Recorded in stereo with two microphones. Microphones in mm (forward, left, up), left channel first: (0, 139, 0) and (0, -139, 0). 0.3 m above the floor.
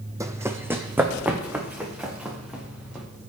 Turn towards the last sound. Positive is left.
turn(degrees=-5)  # may be behind; listen again after turning